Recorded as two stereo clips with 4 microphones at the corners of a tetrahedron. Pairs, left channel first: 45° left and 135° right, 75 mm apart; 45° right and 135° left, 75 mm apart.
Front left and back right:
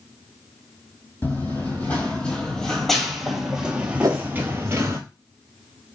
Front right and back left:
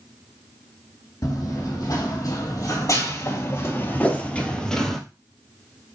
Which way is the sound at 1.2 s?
20° right.